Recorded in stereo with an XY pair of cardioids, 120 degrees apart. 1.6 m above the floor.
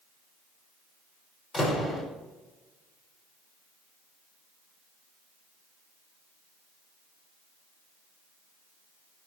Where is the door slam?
35° left, 6 m.